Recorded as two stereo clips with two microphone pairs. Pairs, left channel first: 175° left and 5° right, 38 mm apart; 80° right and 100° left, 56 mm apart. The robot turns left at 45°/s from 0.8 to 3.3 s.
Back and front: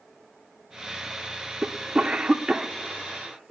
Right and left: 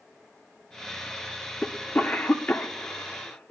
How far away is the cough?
About 0.8 m.